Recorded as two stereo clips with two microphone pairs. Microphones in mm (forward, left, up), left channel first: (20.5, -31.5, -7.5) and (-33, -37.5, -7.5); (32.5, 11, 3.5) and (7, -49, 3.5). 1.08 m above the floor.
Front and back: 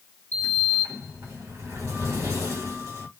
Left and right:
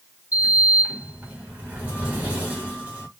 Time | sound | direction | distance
0.3 | a sliding door | 175° right | 1.5 m